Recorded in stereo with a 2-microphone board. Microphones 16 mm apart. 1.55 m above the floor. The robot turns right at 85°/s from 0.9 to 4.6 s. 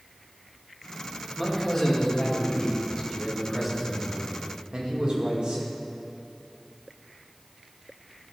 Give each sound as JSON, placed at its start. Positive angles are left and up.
{"t": 1.4, "sound": "a man speaking", "azimuth_deg": 0, "distance_m": 2.0}